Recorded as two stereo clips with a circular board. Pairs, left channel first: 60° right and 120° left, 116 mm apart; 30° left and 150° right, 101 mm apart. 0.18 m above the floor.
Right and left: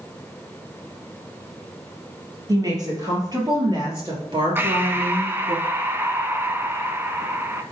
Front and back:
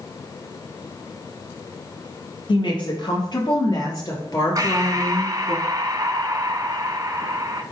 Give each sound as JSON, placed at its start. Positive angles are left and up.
{"t": 2.5, "sound": "a woman speaking", "azimuth_deg": 65, "distance_m": 3.5}
{"t": 4.5, "sound": "breathing", "azimuth_deg": -175, "distance_m": 0.7}